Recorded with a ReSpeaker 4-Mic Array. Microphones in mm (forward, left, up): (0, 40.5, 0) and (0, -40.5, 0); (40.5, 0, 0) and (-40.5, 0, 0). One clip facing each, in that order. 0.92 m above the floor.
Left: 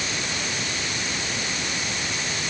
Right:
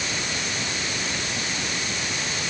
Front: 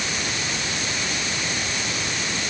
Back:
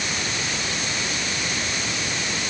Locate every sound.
Only background noise.